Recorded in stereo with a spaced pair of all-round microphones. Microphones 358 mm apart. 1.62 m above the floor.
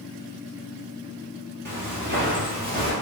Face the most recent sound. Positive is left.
turn(degrees=-25)  # may be behind; listen again after turning